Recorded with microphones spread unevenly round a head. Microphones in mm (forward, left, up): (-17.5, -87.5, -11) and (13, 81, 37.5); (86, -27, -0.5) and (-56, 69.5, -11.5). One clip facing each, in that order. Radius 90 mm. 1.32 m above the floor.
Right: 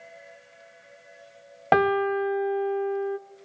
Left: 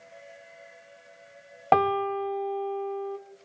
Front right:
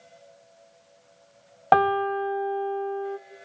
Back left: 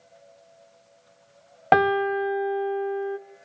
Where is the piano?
160° left, 0.6 m.